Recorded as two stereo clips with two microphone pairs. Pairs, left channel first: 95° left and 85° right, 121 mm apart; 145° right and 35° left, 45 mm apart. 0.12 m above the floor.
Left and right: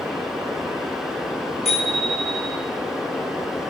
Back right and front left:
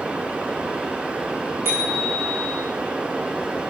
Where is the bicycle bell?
60° left, 7.5 m.